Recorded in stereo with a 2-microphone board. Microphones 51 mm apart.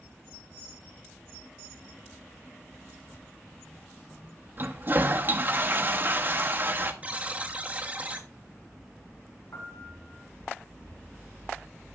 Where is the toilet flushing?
40° right (ahead or behind), 0.9 m.